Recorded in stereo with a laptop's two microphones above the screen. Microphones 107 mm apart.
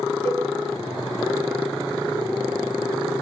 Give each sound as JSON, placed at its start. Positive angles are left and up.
{"t": 0.2, "sound": "a cowbell", "side_deg": -75, "distance_m": 1.1}